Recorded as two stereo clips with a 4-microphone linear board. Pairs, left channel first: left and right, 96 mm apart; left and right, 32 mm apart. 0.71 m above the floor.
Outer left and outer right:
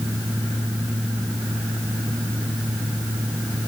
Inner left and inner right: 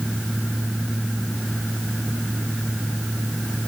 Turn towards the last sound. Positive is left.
No sound to turn to.